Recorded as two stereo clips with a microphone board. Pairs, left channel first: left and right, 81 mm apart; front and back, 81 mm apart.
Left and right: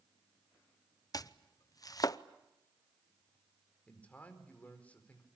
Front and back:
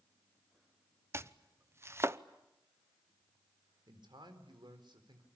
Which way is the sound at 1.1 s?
125° left.